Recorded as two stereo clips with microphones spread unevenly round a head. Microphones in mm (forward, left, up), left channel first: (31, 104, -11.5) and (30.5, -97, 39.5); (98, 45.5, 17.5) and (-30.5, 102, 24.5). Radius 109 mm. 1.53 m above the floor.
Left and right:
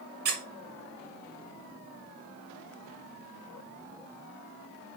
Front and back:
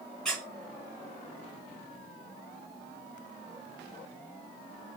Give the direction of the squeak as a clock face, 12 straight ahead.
4 o'clock.